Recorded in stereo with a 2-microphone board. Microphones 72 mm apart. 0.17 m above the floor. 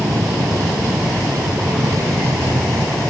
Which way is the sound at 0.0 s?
65° right (ahead or behind).